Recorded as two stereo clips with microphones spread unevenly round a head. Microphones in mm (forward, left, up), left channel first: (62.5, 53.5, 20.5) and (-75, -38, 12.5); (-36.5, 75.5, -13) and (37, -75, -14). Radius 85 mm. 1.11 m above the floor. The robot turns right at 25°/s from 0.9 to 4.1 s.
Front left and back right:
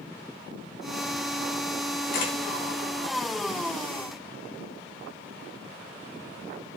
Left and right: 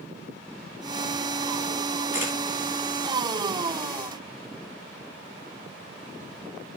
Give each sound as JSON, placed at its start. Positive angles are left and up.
{"t": 2.1, "sound": "a camera shutter", "azimuth_deg": 10, "distance_m": 2.5}